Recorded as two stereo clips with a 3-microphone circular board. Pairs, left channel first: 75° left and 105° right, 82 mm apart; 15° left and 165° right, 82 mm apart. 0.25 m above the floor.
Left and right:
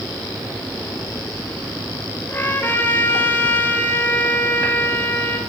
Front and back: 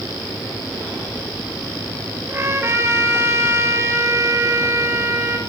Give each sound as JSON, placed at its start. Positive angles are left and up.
{"t": 2.3, "sound": "a trumpet", "azimuth_deg": 135, "distance_m": 4.5}